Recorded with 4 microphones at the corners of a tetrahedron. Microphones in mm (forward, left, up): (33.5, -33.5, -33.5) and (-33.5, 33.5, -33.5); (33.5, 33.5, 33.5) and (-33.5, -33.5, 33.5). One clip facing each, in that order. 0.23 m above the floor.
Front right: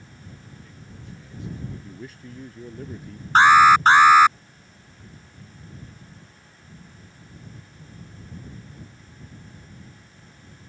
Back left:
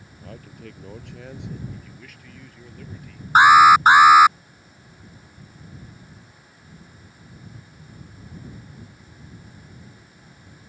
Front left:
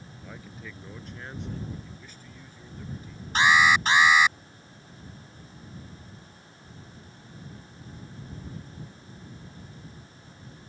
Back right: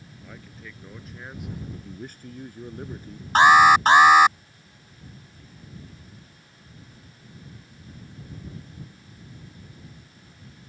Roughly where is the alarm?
Behind right.